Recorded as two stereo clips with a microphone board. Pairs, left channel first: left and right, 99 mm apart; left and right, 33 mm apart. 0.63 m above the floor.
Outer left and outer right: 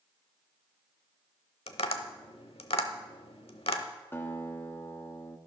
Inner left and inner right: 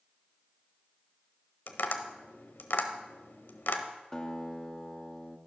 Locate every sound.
1.7 s tapping: 80° left, 0.9 m
4.1 s a guitar: 20° left (ahead or behind), 0.9 m